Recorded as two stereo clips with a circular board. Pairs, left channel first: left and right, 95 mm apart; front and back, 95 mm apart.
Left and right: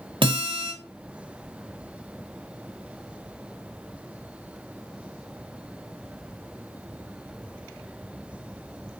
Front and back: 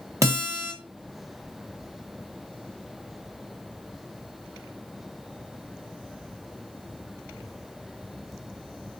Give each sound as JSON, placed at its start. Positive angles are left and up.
{"t": 0.2, "sound": "a guitar", "azimuth_deg": -120, "distance_m": 1.0}